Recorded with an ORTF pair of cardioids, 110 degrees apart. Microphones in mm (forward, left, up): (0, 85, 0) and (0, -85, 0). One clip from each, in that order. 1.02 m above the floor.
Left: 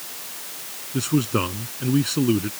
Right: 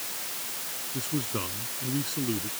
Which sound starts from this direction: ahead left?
A man speaking, at 0.9 s.